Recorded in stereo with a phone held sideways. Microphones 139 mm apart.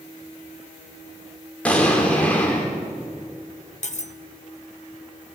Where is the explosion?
10° left (ahead or behind), 4.5 m.